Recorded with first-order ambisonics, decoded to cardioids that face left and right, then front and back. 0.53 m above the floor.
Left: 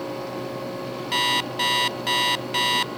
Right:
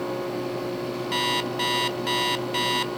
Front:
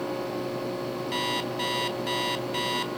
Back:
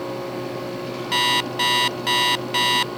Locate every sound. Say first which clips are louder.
1.1 s an alarm clock: left 3 dB, back 11 dB; 160° left, 0.5 m